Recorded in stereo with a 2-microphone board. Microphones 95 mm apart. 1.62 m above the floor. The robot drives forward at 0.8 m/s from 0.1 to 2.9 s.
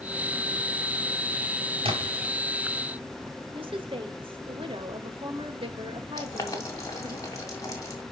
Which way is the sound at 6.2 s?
35° left (ahead or behind).